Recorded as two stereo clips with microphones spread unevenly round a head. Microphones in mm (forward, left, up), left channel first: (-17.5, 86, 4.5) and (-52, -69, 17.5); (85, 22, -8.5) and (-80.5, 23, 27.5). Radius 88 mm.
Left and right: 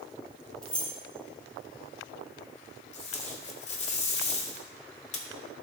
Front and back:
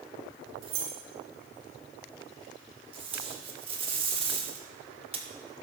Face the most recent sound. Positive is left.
turn(degrees=125)